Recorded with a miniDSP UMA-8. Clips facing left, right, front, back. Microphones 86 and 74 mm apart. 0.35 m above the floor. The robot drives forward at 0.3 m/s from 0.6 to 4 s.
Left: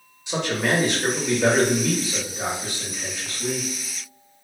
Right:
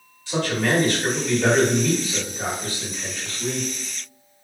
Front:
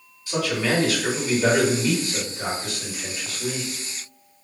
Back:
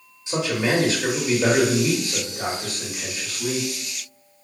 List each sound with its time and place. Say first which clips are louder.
0.3 s a man speaking: right 1 dB, back 1 dB; 140° left, 0.9 m; by 3.7 s 165° left, 1.5 m